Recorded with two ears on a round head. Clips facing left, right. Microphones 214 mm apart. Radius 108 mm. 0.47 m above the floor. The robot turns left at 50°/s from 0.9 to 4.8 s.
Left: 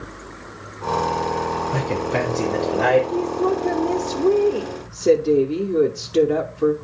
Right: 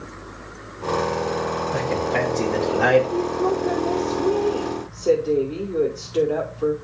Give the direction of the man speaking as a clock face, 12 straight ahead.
10 o'clock.